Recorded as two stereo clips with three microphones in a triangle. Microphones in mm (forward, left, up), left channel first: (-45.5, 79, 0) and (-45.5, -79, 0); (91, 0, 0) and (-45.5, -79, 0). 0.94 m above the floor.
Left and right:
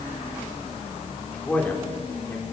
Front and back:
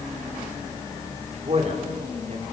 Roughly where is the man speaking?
Behind.